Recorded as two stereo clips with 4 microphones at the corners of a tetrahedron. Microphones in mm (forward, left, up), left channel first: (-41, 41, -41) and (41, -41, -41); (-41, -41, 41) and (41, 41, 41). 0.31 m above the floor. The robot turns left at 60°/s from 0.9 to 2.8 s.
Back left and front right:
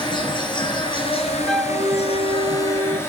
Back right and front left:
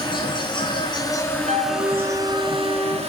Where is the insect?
Straight behind, 4.5 m; by 3.1 s 65° left, 4.5 m.